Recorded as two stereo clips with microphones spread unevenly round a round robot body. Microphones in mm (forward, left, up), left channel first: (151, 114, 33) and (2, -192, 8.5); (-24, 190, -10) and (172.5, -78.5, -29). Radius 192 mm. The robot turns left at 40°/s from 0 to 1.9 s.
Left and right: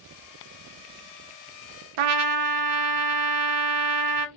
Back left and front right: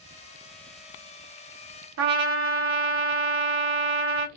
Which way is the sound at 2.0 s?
110° right.